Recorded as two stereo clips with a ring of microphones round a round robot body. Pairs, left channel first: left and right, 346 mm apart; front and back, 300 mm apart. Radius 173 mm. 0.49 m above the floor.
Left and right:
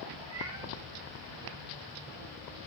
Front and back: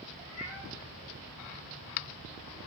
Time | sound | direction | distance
0.2 | a cat meowing | 10° right | 7.5 m